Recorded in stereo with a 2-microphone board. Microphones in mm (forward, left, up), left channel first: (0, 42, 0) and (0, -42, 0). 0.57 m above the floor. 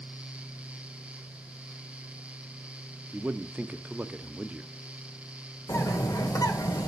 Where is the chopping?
No chopping in this recording.